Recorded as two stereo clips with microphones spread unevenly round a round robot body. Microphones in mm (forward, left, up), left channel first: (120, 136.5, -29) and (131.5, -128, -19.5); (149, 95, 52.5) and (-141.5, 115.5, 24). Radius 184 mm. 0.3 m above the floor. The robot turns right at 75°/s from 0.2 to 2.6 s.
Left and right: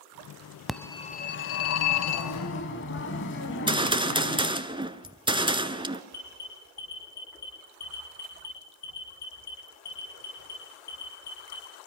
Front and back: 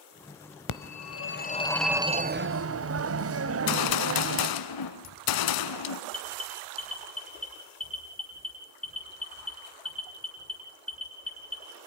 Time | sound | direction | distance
0.7 | a phone ringing | 5° left | 1.1 m
3.5 | a gunshot | 15° right | 1.5 m
6.1 | an alarm | 85° left | 8.5 m